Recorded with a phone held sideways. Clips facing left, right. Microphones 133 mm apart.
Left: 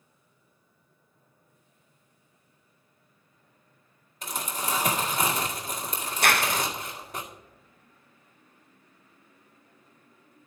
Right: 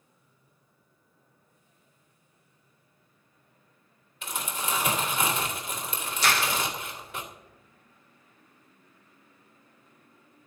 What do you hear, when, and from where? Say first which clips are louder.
4.2 s crumpling: left 1 dB; 40° left (ahead or behind), 2 m
6.2 s a clap: left 2 dB; 55° left (ahead or behind), 0.6 m